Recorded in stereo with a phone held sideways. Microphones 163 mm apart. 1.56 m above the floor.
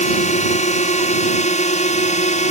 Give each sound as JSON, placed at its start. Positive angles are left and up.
{"t": 0.0, "sound": "a drone", "side_deg": 45}